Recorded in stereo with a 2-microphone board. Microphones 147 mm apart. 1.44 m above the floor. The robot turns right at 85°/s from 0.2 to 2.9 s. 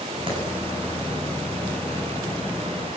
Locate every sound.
0.3 s a clap: 40° right (ahead or behind), 9 m; by 0.4 s 30° right (ahead or behind), 9 m